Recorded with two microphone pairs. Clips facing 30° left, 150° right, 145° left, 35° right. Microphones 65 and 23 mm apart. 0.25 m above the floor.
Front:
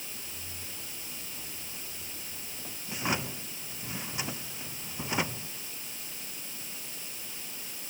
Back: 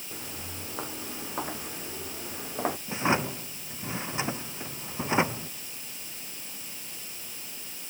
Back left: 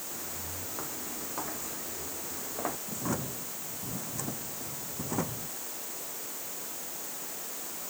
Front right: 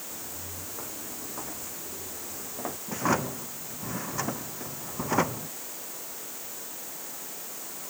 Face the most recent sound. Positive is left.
turn(degrees=-85)